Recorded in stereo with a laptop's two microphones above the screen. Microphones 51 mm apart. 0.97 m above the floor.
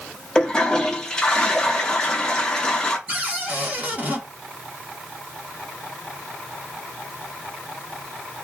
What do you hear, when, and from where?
0.3 s a toilet flushing: 15° left (ahead or behind), 0.8 m
3.1 s a cupboard door: 30° right (ahead or behind), 1.0 m